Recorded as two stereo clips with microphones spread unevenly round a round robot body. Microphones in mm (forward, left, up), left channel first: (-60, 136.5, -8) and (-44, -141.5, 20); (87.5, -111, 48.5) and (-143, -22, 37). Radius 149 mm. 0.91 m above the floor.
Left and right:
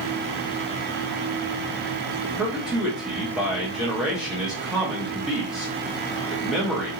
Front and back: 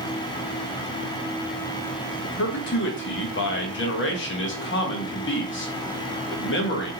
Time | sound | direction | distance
2.2 | a man speaking | 5° left | 0.8 m